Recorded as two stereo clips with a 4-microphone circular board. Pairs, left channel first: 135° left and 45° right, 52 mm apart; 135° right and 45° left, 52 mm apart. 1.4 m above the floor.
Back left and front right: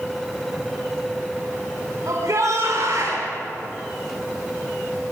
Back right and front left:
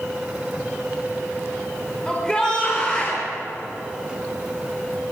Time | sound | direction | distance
2.1 | a shout | 60° right | 5 m